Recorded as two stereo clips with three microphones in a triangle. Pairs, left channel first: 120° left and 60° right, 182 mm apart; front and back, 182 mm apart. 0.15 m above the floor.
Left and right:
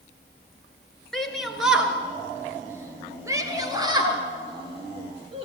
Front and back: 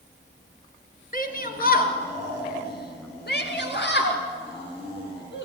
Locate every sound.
1.1 s a shout: 30° left, 3 m; by 5.5 s straight ahead, 4.5 m